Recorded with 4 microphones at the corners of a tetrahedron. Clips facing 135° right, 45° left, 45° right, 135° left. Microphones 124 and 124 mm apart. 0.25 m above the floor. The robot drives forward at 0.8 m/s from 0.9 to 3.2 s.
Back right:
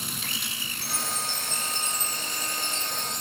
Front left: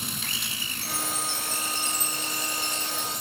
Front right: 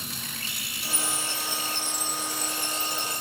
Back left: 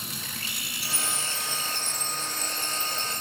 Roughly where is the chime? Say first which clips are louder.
Front left 1 dB, front right 2 dB; left.